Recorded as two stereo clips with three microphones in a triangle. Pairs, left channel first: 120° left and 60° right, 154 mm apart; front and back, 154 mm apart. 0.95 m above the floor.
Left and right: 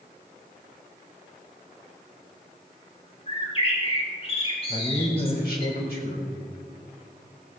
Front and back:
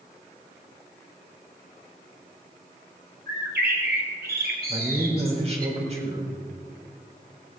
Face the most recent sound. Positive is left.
turn(degrees=135)